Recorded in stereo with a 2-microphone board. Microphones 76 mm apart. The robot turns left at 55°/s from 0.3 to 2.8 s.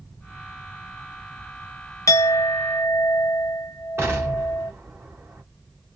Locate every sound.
2.1 s a clink: 75° left, 0.6 m; by 4.7 s 35° left, 0.6 m
4.0 s an explosion: 35° right (ahead or behind), 1.3 m